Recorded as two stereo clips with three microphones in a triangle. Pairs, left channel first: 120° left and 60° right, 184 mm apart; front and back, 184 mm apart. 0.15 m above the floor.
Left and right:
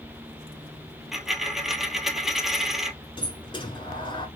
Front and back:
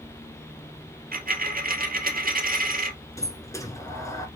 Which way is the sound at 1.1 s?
150° right.